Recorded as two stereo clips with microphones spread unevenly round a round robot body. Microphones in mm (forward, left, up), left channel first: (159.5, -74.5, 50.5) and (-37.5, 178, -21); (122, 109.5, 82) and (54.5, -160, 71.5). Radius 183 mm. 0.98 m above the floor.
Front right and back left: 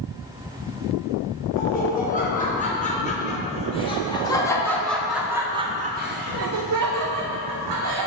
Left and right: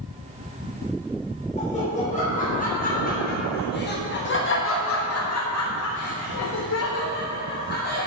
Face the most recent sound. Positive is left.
turn(degrees=140)